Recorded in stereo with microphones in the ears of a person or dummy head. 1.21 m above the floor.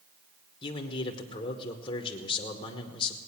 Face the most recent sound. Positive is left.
turn(degrees=25)  # may be behind; listen again after turning